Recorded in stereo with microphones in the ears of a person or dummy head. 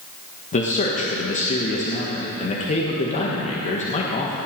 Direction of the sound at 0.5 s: 35° left (ahead or behind).